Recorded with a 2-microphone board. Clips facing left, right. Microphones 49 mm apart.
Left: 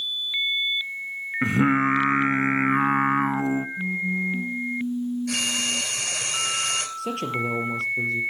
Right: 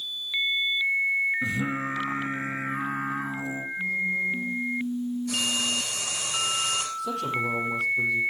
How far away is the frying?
About 3 m.